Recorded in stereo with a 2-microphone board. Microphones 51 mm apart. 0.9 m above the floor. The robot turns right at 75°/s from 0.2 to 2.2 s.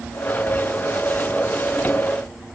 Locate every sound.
Only background noise.